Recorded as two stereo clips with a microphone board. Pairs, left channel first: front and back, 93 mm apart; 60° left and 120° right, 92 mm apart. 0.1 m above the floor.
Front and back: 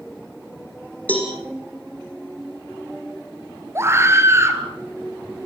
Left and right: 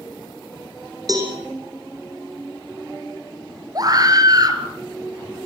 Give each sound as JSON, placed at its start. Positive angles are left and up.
{"t": 1.1, "sound": "a cowbell", "azimuth_deg": -75, "distance_m": 5.5}
{"t": 3.8, "sound": "a scream", "azimuth_deg": -135, "distance_m": 2.5}